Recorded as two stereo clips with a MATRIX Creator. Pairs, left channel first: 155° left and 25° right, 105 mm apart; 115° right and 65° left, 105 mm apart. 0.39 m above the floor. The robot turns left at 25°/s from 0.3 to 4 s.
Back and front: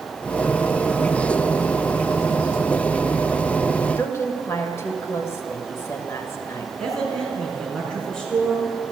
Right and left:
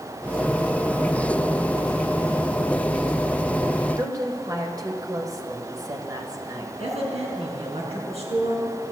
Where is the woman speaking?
105° left, 1.6 m.